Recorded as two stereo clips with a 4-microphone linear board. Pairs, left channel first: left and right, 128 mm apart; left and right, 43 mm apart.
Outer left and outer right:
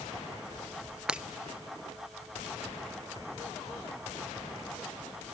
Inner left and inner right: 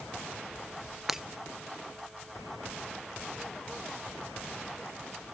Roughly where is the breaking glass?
Centre.